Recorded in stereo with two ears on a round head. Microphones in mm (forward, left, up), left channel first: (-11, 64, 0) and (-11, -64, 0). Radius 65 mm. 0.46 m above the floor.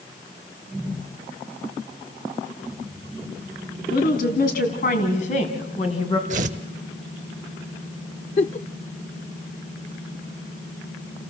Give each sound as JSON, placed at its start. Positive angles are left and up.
{"t": 3.9, "sound": "a woman speaking", "side_deg": 70, "distance_m": 4.0}
{"t": 6.3, "sound": "tearing paper", "side_deg": -55, "distance_m": 0.8}
{"t": 8.4, "sound": "a giggle", "side_deg": 45, "distance_m": 0.5}